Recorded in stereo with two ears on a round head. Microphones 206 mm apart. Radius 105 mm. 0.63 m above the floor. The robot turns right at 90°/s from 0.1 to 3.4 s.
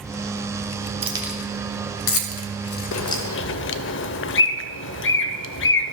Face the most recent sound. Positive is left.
turn(degrees=55)  # may be behind; listen again after turning